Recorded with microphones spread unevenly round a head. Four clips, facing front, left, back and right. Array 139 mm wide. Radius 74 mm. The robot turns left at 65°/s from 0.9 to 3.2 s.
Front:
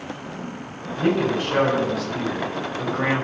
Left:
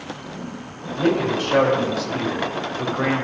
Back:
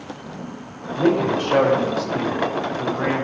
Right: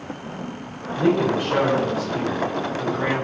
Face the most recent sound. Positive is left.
turn(degrees=25)